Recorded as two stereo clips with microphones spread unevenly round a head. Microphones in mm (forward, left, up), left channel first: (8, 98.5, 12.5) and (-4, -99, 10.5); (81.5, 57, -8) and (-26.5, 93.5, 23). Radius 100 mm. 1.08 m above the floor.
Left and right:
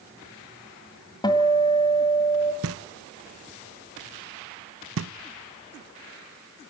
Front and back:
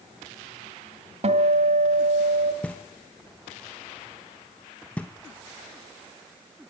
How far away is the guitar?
About 1.9 m.